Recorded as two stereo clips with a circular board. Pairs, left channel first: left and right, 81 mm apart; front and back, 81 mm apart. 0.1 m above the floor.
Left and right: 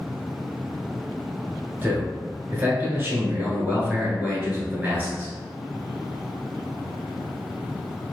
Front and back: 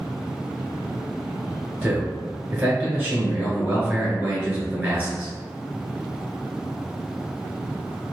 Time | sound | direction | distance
1.8 | a man speaking | 130° right | 1.2 m